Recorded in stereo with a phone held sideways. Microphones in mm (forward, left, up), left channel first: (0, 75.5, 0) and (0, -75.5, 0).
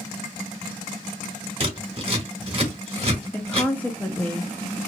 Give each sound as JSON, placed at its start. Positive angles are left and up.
{"t": 1.6, "sound": "scissors", "side_deg": -35, "distance_m": 1.6}
{"t": 3.3, "sound": "a woman speaking", "side_deg": 10, "distance_m": 0.5}